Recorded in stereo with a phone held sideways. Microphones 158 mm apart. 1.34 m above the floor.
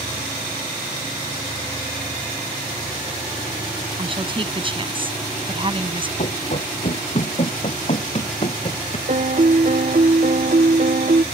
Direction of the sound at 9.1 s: 55° right (ahead or behind).